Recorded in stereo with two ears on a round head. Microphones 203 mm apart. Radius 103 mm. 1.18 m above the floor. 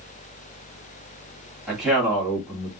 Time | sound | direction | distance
1.7 | a man speaking | 5° right (ahead or behind) | 2 m